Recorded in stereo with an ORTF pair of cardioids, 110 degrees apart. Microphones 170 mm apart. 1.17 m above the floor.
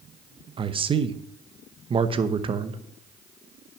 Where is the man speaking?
30° right, 0.9 m.